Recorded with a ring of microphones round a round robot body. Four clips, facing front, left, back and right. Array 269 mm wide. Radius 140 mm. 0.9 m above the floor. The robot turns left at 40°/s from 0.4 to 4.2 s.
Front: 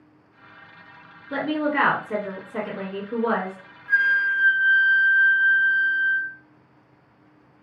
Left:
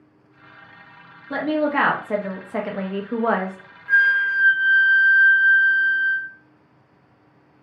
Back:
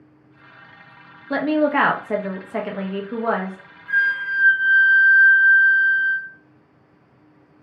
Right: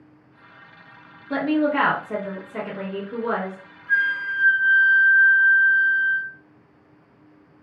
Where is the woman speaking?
175° right, 0.7 m; by 3.6 s 90° left, 0.7 m.